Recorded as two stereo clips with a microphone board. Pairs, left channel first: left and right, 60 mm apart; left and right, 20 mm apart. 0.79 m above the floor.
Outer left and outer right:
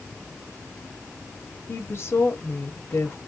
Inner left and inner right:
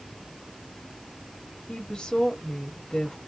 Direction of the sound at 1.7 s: 50° left (ahead or behind).